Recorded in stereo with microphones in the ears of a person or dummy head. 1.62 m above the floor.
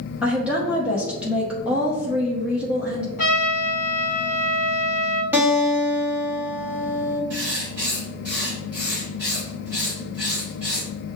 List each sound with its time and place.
0.2 s a woman speaking: 5° right (ahead or behind), 0.8 m
3.2 s a trumpet: 50° left (ahead or behind), 1.7 m
5.3 s a guitar: 10° right (ahead or behind), 1.4 m
7.3 s writing: 15° right (ahead or behind), 1.6 m